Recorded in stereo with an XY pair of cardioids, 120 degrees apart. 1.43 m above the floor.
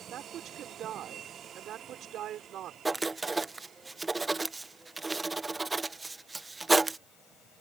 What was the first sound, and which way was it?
A woman speaking, 60° right.